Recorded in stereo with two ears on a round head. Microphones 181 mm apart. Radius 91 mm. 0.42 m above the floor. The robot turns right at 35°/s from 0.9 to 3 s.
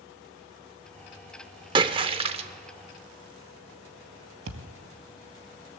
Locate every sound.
1.8 s a splash: 25° right (ahead or behind), 0.9 m; by 2.5 s 30° right (ahead or behind), 0.9 m
4.5 s a thud: 80° right, 1.8 m